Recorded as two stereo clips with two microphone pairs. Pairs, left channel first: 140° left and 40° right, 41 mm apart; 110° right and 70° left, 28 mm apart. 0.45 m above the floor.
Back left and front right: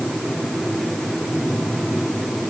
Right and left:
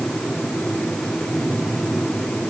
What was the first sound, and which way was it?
Only background noise.